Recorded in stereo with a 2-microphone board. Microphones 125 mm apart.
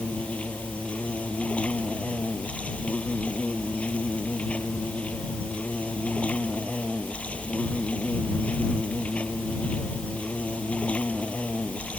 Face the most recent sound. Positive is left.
turn(degrees=10)  # may be behind; listen again after turning